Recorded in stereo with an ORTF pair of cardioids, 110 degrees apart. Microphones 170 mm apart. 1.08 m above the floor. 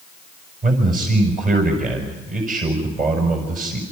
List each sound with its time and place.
0.6 s a man speaking: 50° right, 6.5 m